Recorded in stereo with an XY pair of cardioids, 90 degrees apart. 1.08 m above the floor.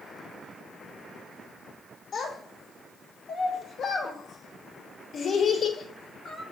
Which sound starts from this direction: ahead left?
A child speaking, at 2.1 s.